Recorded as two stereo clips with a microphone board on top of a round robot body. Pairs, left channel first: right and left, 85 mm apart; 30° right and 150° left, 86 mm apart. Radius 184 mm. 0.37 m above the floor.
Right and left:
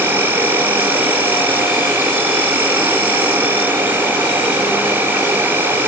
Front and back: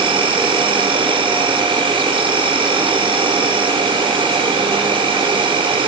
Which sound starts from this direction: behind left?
An insect, at 0.0 s.